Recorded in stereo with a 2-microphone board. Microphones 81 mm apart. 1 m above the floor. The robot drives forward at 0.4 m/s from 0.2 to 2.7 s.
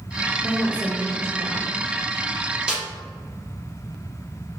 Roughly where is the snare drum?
Centre.